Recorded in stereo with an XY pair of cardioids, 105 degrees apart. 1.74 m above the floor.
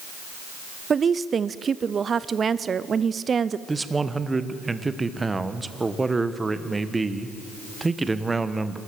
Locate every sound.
0.9 s a woman speaking: 40° right, 0.6 m
3.7 s a man speaking: 20° right, 1.2 m